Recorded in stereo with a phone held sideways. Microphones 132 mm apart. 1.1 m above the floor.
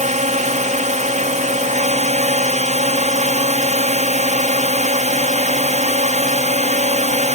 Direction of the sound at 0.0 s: 60° right (ahead or behind).